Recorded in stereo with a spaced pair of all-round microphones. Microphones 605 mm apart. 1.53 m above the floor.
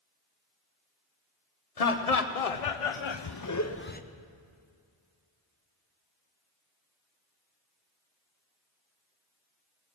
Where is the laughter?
85° left, 1.1 m; by 4.0 s 15° left (ahead or behind), 0.8 m.